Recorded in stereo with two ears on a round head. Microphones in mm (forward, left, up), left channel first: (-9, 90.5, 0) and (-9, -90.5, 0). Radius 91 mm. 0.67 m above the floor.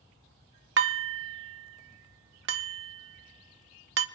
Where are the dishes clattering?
65° right (ahead or behind), 0.7 m.